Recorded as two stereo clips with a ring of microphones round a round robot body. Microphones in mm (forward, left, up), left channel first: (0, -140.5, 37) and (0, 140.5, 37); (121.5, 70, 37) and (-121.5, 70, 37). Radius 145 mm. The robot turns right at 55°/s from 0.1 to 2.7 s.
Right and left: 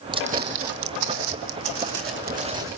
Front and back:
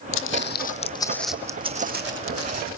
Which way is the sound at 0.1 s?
20° left.